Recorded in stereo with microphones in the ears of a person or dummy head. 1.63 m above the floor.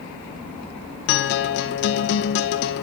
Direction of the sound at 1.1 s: 45° left (ahead or behind).